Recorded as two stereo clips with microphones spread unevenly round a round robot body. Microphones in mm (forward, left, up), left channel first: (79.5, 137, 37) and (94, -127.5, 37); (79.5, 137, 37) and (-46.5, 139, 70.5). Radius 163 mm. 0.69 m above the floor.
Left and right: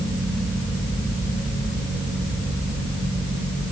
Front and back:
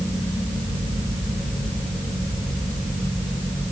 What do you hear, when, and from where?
Only background noise.